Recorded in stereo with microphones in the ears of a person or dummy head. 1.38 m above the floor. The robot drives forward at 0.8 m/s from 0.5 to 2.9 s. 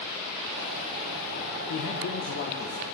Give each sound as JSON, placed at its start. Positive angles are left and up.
{"t": 1.7, "sound": "a man speaking", "side_deg": 65, "distance_m": 1.3}